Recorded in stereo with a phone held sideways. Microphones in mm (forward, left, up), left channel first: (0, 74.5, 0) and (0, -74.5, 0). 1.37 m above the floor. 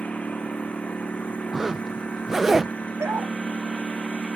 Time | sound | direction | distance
0.0 | a lawn mower | 10° left (ahead or behind) | ?
1.5 | a zipper | 5° right (ahead or behind) | ?
3.0 | a dog barking | 20° right (ahead or behind) | ?